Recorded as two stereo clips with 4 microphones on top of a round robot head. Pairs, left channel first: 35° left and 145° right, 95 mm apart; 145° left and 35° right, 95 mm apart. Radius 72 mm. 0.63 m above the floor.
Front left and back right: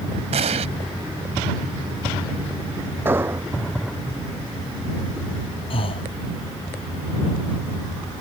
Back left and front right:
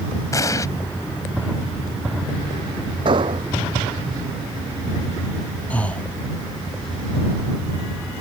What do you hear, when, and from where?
0.3 s an explosion: 155° right
3.0 s an explosion: 75° right
5.7 s breathing: 70° left